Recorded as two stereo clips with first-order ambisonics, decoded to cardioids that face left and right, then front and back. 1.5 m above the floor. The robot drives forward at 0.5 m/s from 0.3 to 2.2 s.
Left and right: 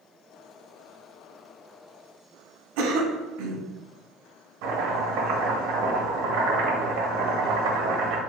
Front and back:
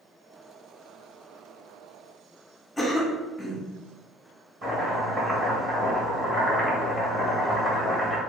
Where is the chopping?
110° right, 1.1 m.